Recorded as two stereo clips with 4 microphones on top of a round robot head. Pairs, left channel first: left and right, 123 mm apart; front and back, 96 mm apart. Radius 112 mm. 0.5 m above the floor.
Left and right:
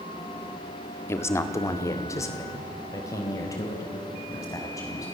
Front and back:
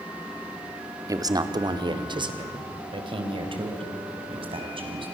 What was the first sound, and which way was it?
A man speaking, 150° left.